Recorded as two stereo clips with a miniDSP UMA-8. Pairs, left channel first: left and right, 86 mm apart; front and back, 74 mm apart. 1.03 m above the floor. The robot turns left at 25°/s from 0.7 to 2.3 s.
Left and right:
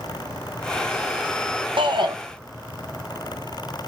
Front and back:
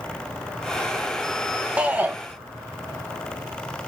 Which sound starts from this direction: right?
A shout, at 1.8 s.